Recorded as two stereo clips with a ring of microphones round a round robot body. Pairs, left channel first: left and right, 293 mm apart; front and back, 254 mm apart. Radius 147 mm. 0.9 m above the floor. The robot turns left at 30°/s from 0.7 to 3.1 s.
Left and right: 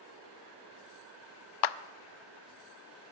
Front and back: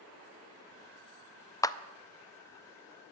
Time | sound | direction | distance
1.6 | a clap | 80° left | 0.6 m